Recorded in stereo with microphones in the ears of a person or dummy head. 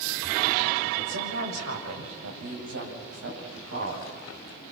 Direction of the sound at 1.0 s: 80° right.